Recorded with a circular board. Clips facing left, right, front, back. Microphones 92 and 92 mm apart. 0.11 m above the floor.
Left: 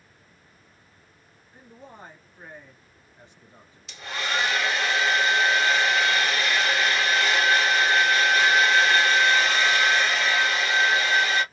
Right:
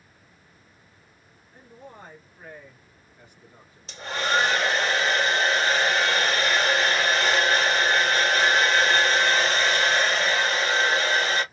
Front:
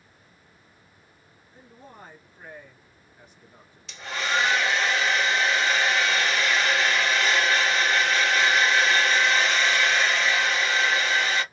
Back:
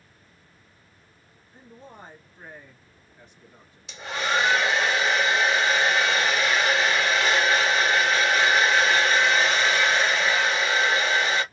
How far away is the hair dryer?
About 1.3 m.